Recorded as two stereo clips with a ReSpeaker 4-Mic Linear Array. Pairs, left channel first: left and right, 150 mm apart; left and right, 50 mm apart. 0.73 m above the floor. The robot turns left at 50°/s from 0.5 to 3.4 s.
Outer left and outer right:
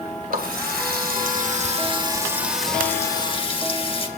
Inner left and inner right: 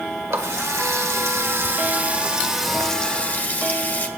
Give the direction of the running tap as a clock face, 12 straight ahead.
2 o'clock.